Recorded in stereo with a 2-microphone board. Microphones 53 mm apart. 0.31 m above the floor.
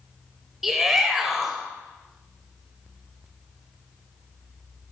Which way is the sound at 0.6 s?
5° right (ahead or behind).